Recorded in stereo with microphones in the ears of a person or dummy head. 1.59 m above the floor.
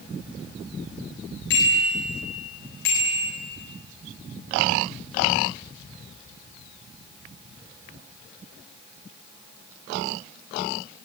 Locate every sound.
1.5 s a bicycle bell: 80° left, 8.5 m